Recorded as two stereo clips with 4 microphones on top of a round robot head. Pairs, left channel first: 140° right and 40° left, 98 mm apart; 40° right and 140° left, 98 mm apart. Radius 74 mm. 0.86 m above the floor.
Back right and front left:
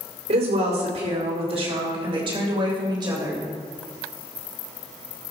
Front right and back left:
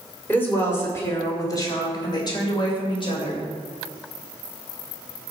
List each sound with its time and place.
0.3 s a woman speaking: 30° left, 3 m; by 3.4 s 10° right, 3.5 m